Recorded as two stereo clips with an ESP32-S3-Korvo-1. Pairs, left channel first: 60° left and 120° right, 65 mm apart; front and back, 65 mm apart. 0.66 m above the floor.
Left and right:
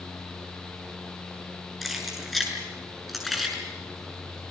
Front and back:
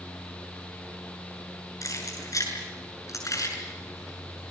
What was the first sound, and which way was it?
Keys jangling, 30° right.